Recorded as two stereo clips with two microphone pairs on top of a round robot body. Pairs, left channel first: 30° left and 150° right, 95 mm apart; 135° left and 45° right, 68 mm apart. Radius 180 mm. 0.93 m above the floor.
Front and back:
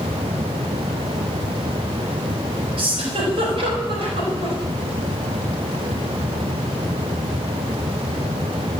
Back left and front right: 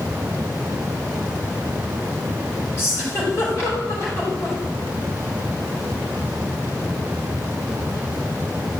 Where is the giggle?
175° right, 5 m.